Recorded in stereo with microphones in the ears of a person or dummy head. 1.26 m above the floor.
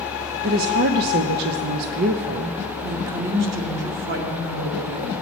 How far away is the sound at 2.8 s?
About 2 m.